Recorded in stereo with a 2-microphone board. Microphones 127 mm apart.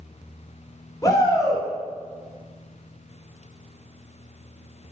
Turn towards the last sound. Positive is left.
turn(degrees=25)  # may be behind; listen again after turning